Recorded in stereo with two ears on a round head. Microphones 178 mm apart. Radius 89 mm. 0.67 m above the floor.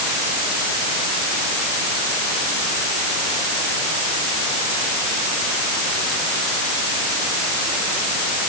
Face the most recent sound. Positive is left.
No sound to turn to.